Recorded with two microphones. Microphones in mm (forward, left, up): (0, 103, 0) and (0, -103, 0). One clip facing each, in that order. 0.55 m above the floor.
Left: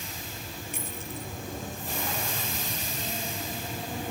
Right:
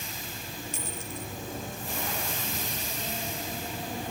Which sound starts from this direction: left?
A dropped coin, at 0.7 s.